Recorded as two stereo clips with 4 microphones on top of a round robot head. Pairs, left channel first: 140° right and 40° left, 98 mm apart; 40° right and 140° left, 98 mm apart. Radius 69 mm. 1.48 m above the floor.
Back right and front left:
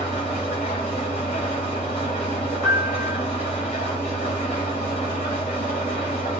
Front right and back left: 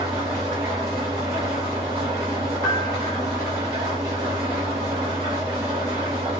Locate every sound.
0.0 s an engine running: 170° right, 1.3 m
2.6 s a piano: 80° right, 1.3 m